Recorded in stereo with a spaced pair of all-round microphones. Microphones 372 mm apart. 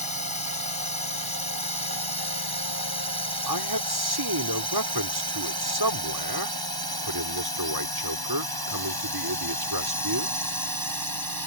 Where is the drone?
75° right (ahead or behind).